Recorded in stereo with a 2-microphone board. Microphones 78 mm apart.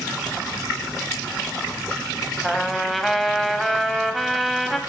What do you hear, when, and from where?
2.4 s a trumpet: centre (ahead or behind), 1.0 m